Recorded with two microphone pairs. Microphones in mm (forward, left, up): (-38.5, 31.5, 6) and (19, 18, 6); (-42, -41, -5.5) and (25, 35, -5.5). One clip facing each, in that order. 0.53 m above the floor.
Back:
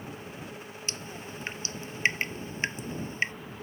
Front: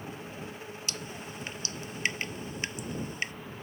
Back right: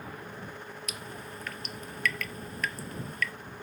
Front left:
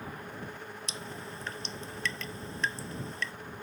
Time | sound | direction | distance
0.9 | dripping | 110° left | ?